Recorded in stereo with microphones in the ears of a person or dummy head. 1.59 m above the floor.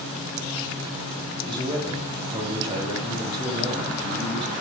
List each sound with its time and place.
1.4 s a man speaking: 25° right (ahead or behind), 2 m